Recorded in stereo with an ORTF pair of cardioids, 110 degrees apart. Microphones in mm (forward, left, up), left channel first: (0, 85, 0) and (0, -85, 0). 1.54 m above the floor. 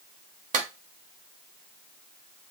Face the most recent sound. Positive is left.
turn(degrees=-50)